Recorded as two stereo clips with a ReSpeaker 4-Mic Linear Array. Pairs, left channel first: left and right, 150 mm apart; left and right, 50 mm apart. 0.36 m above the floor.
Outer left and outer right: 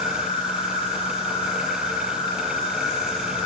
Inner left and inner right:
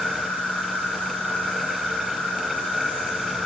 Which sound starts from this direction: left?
An insect, at 0.0 s.